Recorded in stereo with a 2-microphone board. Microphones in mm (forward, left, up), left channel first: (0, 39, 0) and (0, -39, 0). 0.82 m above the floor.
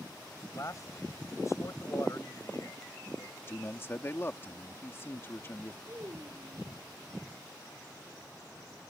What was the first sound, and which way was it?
A man speaking, 45° left (ahead or behind).